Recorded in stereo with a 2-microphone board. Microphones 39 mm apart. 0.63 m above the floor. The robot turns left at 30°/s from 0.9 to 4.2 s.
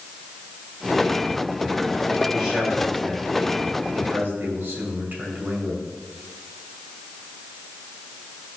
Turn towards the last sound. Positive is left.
turn(degrees=-50)